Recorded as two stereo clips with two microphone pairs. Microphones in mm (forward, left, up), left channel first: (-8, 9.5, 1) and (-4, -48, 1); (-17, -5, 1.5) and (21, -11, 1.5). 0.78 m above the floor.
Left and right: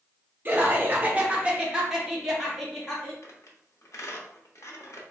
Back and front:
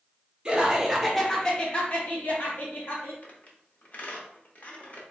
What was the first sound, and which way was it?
Laughter, 65° right.